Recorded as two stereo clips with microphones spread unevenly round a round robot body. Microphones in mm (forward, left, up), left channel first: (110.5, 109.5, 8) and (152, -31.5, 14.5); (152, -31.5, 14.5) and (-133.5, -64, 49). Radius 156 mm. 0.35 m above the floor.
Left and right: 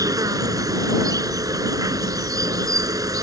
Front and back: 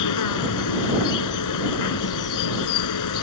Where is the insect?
10° right.